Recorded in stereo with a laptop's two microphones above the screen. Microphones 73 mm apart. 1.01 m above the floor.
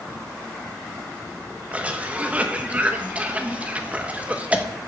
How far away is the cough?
About 1.2 m.